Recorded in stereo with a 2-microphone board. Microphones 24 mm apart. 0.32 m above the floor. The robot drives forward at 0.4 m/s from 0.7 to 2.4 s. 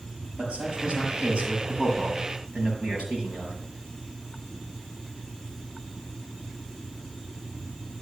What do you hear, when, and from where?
0.4 s a man speaking: 55° right (ahead or behind), 6 m; by 3.6 s 60° right (ahead or behind), 5.5 m